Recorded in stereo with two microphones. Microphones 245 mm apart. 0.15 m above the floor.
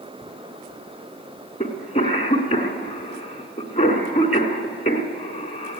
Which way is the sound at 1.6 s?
25° left (ahead or behind).